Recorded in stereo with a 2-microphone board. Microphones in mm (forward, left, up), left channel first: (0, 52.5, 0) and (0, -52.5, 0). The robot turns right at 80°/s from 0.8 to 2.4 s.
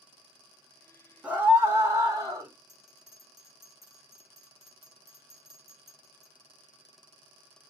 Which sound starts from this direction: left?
A bell, at 2.7 s.